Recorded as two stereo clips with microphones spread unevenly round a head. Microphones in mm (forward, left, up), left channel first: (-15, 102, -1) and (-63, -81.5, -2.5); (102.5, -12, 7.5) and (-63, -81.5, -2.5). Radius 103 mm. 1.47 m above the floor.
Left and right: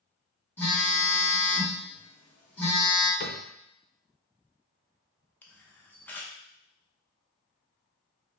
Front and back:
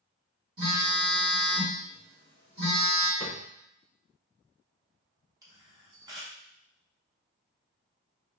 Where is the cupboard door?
90° left, 0.7 m.